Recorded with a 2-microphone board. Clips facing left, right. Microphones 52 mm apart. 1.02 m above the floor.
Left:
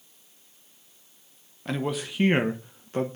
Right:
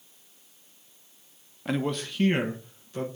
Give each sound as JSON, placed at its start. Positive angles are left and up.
{"t": 1.6, "sound": "a man speaking", "side_deg": -5, "distance_m": 0.9}